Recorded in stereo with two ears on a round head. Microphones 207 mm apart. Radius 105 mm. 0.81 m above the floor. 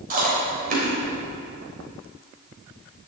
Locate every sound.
0.1 s chewing: 35° right (ahead or behind), 3.5 m